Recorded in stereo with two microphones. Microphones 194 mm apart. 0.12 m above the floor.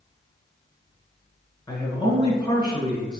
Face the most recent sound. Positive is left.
turn(degrees=25)  # may be behind; listen again after turning